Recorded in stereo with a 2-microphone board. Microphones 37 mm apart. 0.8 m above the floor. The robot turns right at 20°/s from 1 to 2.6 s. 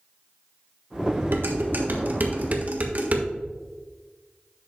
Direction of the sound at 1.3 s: 70° right (ahead or behind).